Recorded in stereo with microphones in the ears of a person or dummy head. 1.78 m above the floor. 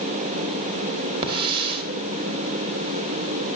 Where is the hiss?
30° right (ahead or behind), 1.6 m.